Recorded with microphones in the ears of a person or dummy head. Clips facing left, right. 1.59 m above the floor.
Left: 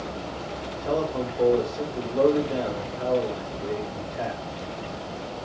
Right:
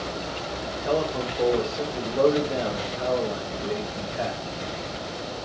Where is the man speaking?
5° right (ahead or behind), 1.2 m.